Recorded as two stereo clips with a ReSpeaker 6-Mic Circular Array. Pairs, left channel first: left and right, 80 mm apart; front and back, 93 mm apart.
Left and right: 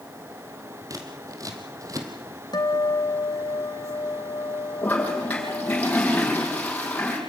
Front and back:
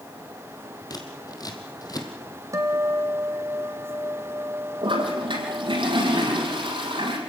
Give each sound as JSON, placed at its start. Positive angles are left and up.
{"t": 0.9, "sound": "scissors", "azimuth_deg": -45, "distance_m": 3.0}
{"t": 2.5, "sound": "a guitar", "azimuth_deg": 125, "distance_m": 1.9}
{"t": 4.8, "sound": "a toilet flushing", "azimuth_deg": 160, "distance_m": 5.5}